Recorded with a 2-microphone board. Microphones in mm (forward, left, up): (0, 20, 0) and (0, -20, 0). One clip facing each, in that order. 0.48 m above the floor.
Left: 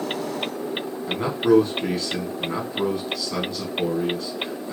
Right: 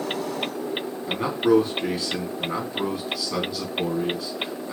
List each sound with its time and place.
1.1 s a man speaking: 10° right (ahead or behind), 3.5 m